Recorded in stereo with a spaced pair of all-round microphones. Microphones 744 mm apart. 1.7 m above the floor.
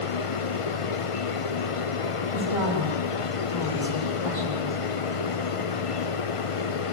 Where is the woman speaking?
85° left, 10 m.